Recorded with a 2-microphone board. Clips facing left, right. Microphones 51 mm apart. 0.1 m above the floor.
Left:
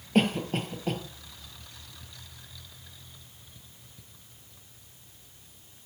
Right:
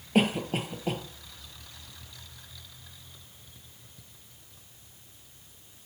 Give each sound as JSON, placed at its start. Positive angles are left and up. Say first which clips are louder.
{"t": 0.1, "sound": "a cough", "louder": "even", "side_deg": -5, "distance_m": 2.5}